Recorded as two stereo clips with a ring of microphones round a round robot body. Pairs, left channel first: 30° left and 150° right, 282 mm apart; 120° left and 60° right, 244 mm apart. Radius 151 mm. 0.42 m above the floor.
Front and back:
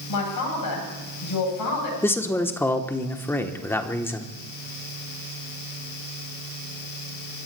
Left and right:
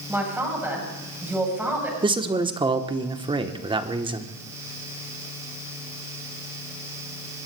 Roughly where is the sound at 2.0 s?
Ahead right.